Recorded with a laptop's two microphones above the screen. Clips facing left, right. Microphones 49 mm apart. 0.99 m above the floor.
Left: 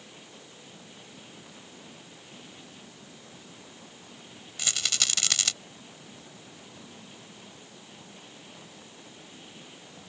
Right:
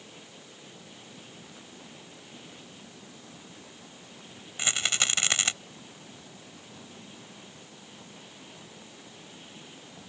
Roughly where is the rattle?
Right.